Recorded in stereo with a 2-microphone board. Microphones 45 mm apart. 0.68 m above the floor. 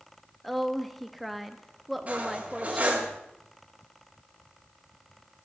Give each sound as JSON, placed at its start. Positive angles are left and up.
{"t": 0.4, "sound": "a woman speaking", "side_deg": 0, "distance_m": 0.7}
{"t": 2.1, "sound": "cutlery clinking", "side_deg": -30, "distance_m": 2.0}